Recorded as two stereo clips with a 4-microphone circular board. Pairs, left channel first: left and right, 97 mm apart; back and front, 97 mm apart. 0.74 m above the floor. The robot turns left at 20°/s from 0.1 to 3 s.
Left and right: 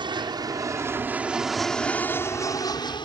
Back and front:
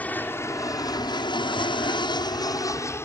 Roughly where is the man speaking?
I don't hear a man speaking.